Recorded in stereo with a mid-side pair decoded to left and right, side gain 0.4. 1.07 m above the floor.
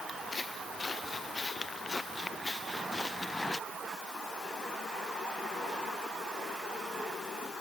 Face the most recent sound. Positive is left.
turn(degrees=20)